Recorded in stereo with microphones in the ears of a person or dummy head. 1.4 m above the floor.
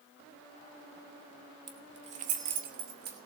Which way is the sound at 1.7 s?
20° right (ahead or behind).